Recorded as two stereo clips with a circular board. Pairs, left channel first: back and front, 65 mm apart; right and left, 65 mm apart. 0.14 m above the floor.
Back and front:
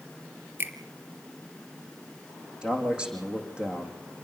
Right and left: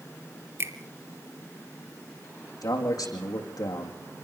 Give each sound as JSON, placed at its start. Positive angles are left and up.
{"t": 0.6, "sound": "a finger snap", "azimuth_deg": 50, "distance_m": 2.5}
{"t": 2.6, "sound": "a man speaking", "azimuth_deg": -75, "distance_m": 6.0}